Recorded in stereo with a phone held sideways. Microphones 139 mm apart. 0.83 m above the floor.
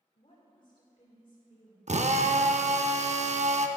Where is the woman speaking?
40° left (ahead or behind), 3 m.